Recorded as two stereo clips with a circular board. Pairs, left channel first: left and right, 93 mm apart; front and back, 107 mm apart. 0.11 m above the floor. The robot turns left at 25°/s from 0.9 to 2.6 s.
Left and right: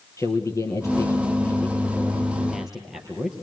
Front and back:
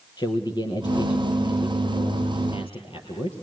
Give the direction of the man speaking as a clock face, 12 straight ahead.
11 o'clock.